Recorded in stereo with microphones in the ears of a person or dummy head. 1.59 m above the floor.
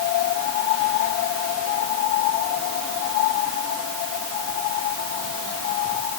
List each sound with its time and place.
Only background noise.